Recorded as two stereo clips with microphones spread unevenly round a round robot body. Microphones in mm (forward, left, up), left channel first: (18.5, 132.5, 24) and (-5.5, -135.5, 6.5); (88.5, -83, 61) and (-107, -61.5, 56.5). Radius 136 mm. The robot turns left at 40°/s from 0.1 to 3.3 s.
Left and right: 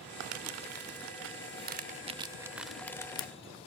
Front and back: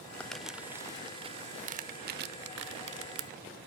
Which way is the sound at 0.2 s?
85° right.